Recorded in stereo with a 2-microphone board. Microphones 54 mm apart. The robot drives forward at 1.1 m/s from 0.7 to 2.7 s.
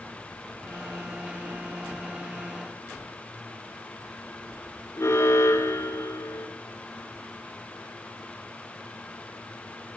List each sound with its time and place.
5.0 s an alarm: 55° left (ahead or behind), 2 m